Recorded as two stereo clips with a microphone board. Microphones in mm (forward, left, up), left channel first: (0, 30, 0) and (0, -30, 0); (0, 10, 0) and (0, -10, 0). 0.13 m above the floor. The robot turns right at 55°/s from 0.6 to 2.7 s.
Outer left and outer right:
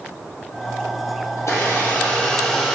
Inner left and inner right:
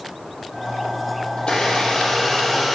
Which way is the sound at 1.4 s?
115° left.